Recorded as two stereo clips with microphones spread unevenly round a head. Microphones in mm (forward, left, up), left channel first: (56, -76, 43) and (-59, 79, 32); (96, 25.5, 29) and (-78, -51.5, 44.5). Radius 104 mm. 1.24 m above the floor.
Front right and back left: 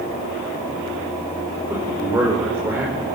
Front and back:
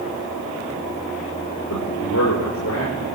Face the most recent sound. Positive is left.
turn(degrees=45)